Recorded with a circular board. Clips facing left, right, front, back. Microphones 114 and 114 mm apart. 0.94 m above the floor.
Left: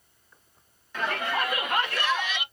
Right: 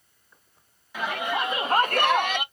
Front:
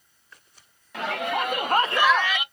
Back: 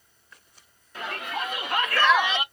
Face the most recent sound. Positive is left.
turn(degrees=-130)